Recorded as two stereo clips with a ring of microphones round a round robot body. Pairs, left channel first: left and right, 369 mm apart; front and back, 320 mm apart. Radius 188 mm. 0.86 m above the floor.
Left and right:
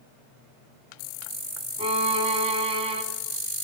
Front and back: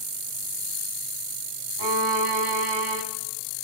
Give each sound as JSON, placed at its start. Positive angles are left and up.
{"t": 1.8, "sound": "a violin", "azimuth_deg": -165, "distance_m": 2.5}